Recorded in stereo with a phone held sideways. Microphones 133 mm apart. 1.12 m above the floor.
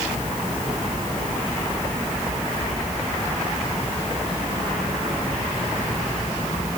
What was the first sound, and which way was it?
Only background noise.